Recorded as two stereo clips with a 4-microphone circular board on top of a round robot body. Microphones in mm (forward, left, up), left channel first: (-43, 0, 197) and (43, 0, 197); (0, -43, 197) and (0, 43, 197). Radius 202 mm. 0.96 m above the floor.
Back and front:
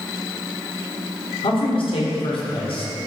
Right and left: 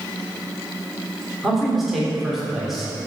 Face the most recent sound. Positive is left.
turn(degrees=180)